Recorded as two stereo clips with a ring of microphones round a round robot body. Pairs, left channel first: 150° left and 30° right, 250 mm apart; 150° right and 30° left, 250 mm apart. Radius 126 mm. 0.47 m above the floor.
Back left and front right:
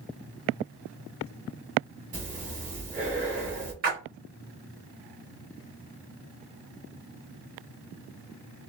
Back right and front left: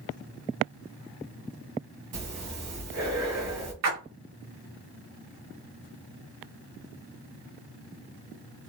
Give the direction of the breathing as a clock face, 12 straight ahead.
11 o'clock.